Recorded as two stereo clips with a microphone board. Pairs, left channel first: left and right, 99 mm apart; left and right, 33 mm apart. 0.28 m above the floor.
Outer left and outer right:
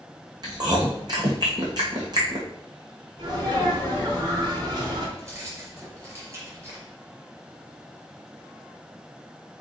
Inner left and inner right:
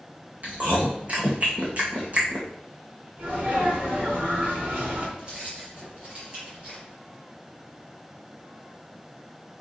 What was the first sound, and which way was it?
Chewing, 40° right (ahead or behind).